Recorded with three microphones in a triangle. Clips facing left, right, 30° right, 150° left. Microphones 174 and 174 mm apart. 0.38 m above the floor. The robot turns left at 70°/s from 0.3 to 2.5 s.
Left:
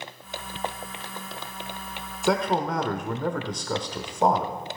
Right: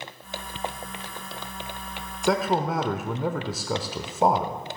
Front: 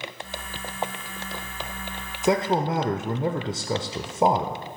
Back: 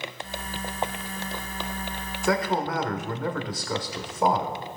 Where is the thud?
I don't hear a thud.